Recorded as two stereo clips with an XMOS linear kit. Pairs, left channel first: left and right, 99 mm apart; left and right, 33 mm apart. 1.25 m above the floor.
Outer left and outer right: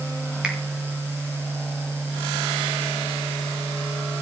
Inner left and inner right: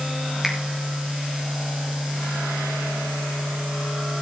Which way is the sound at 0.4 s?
10° right (ahead or behind).